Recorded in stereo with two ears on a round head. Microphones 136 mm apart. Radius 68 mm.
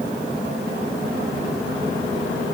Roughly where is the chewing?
No chewing in this recording.